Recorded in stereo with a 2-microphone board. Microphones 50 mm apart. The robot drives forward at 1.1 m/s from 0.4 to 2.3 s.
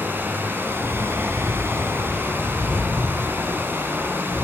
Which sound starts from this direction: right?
Running water, at 0.0 s.